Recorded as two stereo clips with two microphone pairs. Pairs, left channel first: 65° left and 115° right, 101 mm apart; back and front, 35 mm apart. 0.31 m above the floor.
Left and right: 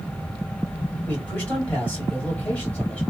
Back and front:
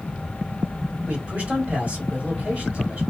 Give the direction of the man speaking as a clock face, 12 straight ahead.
12 o'clock.